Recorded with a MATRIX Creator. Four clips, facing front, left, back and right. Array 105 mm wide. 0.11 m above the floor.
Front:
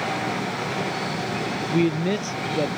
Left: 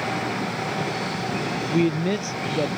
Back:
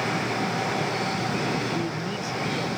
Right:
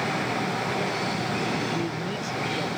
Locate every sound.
1.7 s a man speaking: 45° left